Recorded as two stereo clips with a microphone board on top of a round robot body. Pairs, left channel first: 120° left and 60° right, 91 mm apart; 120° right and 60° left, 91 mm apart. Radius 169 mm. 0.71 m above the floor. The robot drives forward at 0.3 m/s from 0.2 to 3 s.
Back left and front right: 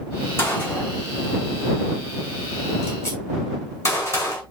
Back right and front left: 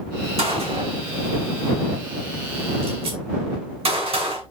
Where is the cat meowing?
No cat meowing in this recording.